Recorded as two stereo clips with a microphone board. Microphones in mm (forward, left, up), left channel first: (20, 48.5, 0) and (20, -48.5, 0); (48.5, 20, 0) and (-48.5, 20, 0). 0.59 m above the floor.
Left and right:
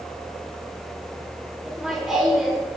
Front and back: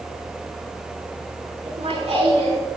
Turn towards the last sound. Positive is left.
turn(degrees=180)